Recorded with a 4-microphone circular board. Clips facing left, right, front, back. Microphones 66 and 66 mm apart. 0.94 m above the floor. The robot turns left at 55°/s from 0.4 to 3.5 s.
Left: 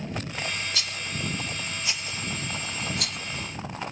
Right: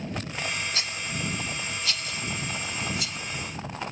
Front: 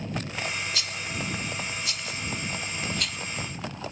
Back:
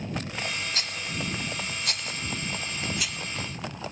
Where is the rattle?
140° right; by 3.2 s 85° left.